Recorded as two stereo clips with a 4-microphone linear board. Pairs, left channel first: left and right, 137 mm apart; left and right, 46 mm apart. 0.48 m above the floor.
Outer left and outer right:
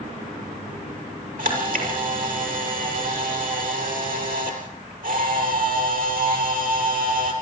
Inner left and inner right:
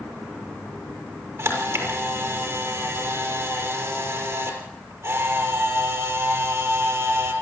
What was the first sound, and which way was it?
A camera shutter, 85° right.